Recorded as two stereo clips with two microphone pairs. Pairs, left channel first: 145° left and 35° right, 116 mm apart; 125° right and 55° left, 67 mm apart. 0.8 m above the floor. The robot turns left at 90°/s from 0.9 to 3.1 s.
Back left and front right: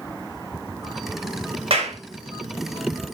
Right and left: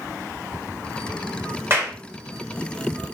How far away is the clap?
About 4 m.